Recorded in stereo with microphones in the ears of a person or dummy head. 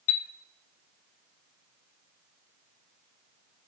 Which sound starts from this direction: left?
A chime, at 0.1 s.